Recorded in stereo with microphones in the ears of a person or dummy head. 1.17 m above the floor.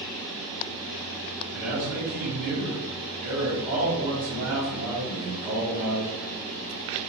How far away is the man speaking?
About 1.1 m.